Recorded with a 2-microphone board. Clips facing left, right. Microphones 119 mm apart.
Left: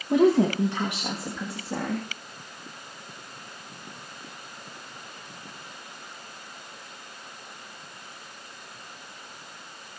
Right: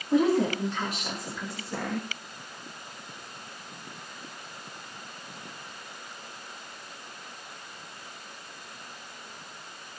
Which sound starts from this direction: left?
A woman speaking, at 0.1 s.